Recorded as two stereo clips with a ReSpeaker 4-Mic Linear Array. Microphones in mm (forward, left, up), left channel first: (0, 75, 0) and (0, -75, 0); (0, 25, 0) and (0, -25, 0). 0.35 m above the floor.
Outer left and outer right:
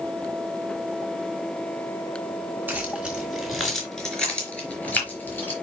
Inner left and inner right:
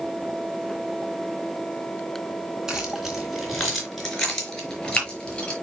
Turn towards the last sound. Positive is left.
turn(degrees=15)  # may be behind; listen again after turning